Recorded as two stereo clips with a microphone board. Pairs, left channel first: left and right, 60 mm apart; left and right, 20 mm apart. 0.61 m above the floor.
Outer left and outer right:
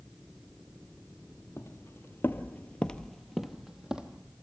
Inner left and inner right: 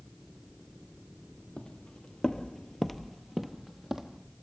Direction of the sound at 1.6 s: 45° left (ahead or behind).